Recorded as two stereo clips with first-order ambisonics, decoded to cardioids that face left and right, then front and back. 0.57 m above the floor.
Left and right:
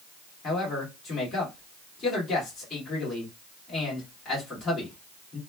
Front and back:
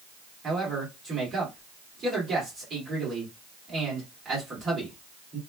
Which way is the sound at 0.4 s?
135° left.